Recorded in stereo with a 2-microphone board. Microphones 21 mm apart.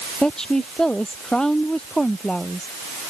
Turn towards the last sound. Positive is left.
turn(degrees=35)  # may be behind; listen again after turning